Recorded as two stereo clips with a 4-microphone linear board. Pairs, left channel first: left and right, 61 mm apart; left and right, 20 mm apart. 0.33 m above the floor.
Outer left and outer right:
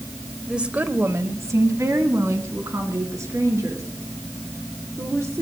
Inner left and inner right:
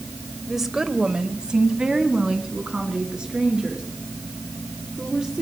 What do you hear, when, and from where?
0.5 s a woman speaking: 10° right (ahead or behind), 1.1 m; by 5.4 s 55° right (ahead or behind), 7.5 m